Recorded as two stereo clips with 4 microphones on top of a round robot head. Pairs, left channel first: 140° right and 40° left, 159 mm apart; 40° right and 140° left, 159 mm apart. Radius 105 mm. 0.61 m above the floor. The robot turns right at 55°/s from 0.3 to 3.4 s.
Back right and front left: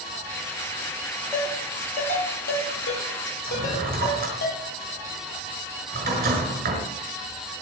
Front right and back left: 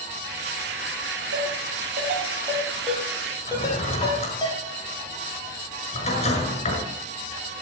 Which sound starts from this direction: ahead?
A drawer, at 3.5 s.